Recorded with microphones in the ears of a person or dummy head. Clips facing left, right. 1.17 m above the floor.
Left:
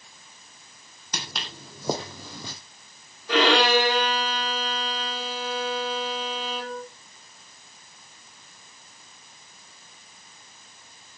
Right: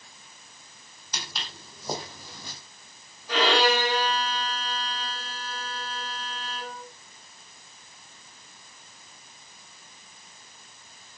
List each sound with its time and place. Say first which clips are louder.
1.1 s footsteps: left 3 dB; 55° left (ahead or behind), 3.5 m; by 2.5 s 60° left (ahead or behind), 2.5 m
3.3 s a violin: left 3 dB; 55° left (ahead or behind), 3.5 m